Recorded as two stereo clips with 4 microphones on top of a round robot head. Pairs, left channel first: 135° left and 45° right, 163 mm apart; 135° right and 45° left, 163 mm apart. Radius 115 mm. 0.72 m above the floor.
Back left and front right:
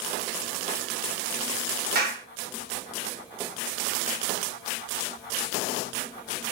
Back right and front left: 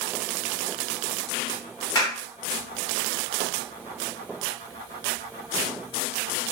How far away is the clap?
About 1.9 m.